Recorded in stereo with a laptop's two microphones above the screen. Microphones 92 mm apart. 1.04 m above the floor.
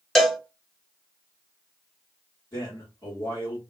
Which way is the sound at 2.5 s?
40° left (ahead or behind).